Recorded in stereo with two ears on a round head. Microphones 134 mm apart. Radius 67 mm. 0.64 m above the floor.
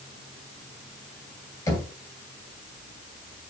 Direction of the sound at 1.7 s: 20° left (ahead or behind).